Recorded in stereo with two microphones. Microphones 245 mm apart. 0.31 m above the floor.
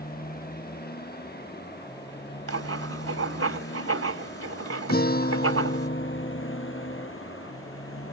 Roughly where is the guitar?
Left.